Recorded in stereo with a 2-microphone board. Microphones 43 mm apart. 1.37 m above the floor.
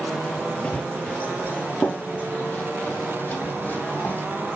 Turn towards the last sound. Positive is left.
turn(degrees=45)  # may be behind; listen again after turning